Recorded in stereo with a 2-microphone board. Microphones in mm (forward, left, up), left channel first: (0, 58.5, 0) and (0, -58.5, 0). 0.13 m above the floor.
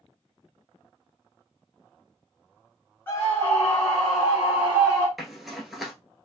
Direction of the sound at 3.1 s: 20° left (ahead or behind).